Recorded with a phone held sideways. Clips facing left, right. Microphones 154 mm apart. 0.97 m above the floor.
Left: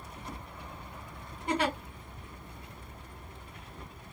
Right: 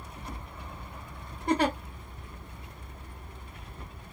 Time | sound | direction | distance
1.5 | a giggle | 40° right (ahead or behind) | 1.3 m